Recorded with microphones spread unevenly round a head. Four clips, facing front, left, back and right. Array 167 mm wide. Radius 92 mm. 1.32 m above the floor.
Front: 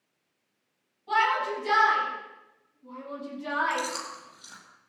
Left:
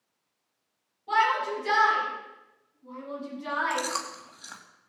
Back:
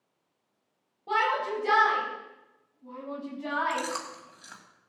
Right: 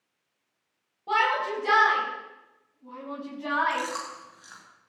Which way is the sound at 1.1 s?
135° right.